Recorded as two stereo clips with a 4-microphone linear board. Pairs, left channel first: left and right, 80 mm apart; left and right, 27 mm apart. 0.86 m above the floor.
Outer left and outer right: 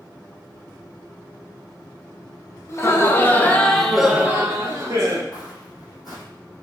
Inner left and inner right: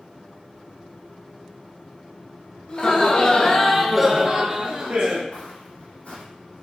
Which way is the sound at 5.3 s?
55° left (ahead or behind).